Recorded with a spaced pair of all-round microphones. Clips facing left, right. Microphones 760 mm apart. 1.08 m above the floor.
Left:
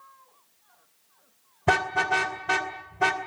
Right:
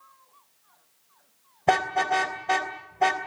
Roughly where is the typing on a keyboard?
No typing on a keyboard in this recording.